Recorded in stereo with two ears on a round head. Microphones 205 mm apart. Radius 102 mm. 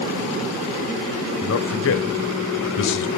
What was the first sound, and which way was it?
A man speaking, 60° left (ahead or behind).